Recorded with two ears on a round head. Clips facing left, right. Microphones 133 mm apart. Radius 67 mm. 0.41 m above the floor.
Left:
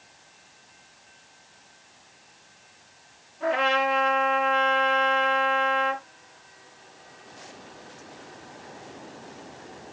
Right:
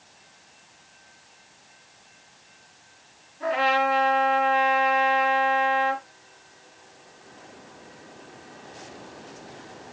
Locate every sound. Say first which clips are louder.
3.4 s a trumpet: right 1 dB; 5° right (ahead or behind), 4.5 m